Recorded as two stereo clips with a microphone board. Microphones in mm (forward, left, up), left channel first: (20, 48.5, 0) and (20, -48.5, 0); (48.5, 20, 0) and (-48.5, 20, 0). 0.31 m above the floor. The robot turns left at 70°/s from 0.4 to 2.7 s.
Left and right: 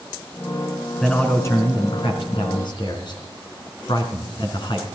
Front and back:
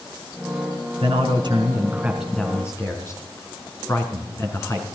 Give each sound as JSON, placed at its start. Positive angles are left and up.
{"t": 1.0, "sound": "a man speaking", "azimuth_deg": 180, "distance_m": 3.0}